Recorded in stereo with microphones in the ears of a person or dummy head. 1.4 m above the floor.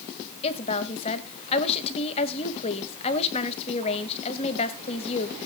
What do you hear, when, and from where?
0.4 s a woman speaking: 35° left (ahead or behind), 2 m